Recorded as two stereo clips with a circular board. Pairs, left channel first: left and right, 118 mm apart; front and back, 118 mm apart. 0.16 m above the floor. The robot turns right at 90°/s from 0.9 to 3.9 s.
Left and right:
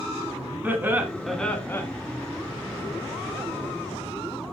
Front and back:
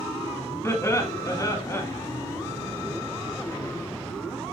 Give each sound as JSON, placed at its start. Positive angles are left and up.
{"t": 0.6, "sound": "laughter", "azimuth_deg": -35, "distance_m": 1.2}